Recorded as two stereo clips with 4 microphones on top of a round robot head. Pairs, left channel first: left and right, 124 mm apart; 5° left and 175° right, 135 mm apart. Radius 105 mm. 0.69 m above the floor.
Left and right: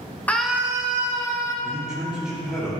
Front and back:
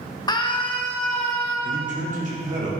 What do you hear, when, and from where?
0.3 s a scream: 25° left, 0.7 m; by 1.5 s 45° right, 1.7 m
1.6 s a man speaking: 175° right, 2 m